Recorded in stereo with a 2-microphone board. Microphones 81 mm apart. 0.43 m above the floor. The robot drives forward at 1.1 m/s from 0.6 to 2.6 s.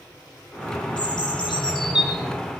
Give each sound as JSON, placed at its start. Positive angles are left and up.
{"t": 1.0, "sound": "a bird", "side_deg": 70, "distance_m": 8.0}